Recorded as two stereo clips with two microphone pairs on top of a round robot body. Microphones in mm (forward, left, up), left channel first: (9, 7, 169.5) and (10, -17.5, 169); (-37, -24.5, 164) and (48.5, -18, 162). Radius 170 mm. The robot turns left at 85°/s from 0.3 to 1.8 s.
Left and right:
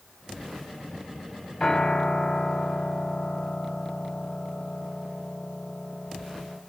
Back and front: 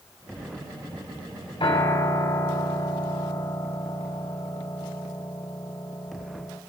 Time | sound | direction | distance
1.6 | a piano | 170° left | 5.5 m